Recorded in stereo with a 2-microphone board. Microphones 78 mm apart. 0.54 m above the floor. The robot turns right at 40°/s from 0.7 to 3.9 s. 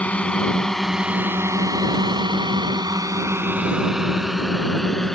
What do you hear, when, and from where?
0.0 s a drone: 20° left (ahead or behind); by 5.2 s 5° left (ahead or behind)